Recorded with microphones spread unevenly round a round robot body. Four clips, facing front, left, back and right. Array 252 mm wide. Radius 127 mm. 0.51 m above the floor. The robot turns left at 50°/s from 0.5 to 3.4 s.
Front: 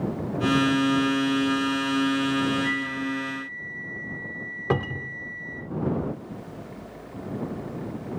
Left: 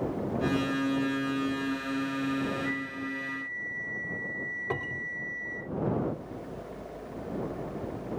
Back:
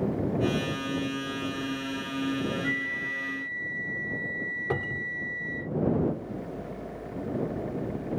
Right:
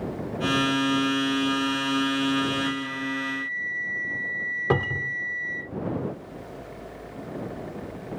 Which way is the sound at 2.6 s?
130° right.